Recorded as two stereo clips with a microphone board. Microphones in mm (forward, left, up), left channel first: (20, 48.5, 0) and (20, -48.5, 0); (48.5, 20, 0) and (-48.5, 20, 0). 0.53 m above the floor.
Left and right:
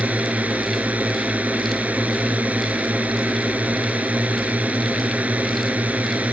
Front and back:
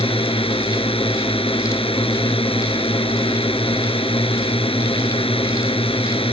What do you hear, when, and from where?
0.0 s a drone: 15° right